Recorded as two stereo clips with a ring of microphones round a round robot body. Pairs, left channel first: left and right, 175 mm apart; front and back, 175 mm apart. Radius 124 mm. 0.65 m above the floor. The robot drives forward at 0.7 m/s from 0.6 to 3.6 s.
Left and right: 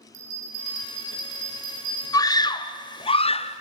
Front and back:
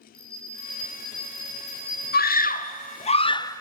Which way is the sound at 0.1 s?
85° right.